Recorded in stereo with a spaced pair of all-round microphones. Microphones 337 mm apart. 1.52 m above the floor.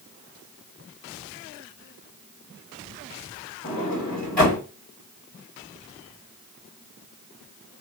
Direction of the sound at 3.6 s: 25° left (ahead or behind).